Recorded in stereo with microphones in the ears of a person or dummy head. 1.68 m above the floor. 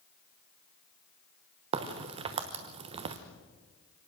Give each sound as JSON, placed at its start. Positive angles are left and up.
{"t": 1.7, "sound": "a crack", "side_deg": -25, "distance_m": 0.9}